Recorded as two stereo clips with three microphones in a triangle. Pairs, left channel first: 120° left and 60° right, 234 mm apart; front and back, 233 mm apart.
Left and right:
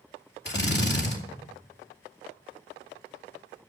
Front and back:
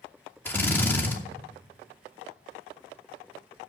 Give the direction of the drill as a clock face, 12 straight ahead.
9 o'clock.